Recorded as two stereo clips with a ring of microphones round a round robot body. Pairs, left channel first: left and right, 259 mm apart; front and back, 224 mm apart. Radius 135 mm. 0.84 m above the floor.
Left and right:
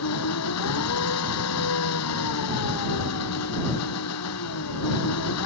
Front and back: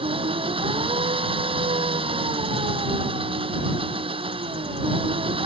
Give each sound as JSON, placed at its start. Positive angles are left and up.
{"t": 0.0, "sound": "an engine running", "azimuth_deg": 115}